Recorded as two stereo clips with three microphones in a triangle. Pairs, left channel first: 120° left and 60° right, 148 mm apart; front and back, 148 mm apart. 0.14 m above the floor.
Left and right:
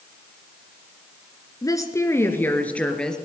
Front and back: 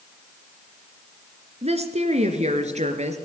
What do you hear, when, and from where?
1.6 s a woman speaking: 175° left, 2.5 m; by 3.2 s 155° right, 3 m